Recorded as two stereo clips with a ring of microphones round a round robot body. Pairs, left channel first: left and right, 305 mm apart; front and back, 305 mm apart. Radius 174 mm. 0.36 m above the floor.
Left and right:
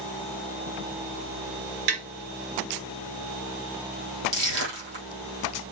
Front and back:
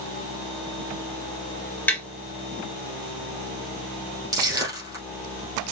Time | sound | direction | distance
1.9 | tapping | 85° right | 2 m
4.3 | crushing | 100° right | 4 m